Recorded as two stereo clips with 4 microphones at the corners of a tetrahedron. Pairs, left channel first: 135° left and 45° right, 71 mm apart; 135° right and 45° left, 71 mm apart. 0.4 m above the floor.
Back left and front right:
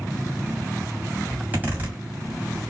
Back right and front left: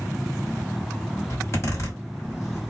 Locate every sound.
1.3 s a zipper: 100° right, 1.7 m